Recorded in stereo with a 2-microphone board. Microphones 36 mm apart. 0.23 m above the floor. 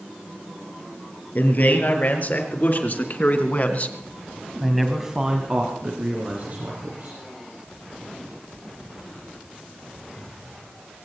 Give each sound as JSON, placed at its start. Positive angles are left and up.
{"t": 1.4, "sound": "a man speaking", "side_deg": 55, "distance_m": 5.0}